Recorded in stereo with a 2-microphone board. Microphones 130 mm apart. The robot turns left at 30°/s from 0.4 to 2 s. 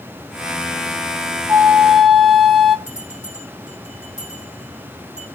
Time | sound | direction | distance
1.5 | a flute | 15° right (ahead or behind) | 0.6 m
2.9 | a bell | 75° left (ahead or behind) | 5.5 m